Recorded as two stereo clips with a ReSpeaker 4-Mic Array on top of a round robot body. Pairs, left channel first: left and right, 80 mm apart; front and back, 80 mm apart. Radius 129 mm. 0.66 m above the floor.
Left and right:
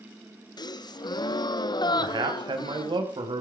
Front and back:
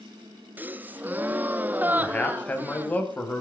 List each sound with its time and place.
0.6 s a gasp: 115° left, 1.2 m
2.0 s a man speaking: 70° right, 6 m